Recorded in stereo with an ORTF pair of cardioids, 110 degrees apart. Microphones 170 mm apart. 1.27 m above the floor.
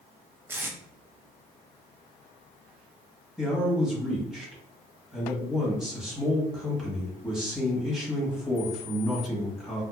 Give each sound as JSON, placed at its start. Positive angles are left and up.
{"t": 0.5, "sound": "tape being pulled", "azimuth_deg": -10, "distance_m": 0.6}
{"t": 3.4, "sound": "a man speaking", "azimuth_deg": -5, "distance_m": 1.3}